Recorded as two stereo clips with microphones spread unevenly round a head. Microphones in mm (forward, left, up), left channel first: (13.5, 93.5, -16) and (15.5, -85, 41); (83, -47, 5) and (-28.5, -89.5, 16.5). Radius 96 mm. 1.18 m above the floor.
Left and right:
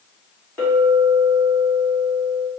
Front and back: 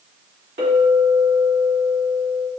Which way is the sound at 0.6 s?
170° left.